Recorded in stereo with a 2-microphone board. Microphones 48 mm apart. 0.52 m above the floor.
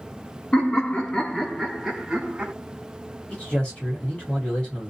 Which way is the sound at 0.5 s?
25° left (ahead or behind).